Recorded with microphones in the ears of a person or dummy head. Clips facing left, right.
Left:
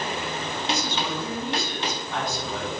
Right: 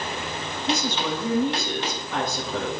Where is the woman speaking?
55° right (ahead or behind), 8 m.